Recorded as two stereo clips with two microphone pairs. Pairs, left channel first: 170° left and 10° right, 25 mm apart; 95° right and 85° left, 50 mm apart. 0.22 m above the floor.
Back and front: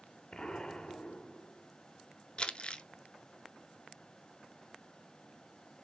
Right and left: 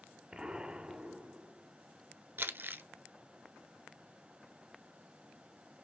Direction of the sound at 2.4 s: 125° left.